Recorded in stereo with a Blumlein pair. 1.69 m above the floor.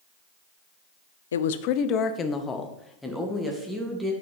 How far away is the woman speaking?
About 0.7 m.